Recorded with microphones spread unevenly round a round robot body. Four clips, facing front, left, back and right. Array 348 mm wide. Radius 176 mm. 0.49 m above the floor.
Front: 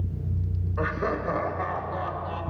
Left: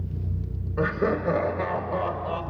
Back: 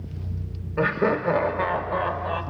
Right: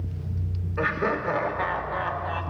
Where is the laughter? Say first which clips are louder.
Left 1 dB, back 6 dB; 155° left, 2.5 m; by 2.4 s 135° left, 2.5 m.